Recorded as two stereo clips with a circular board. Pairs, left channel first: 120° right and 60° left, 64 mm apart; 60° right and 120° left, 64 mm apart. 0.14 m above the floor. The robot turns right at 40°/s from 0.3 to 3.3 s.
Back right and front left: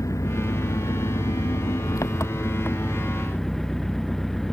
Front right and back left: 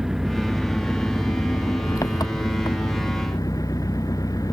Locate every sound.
0.0 s an engine running: 155° right; by 4.5 s 35° right